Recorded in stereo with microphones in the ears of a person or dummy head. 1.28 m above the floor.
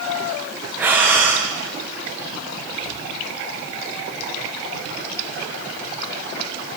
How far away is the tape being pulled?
No tape being pulled in this recording.